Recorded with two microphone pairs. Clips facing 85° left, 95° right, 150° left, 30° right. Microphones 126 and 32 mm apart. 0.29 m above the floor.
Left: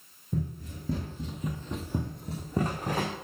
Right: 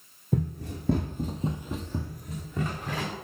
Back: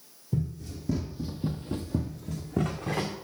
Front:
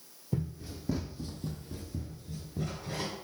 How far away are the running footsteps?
About 1.4 m.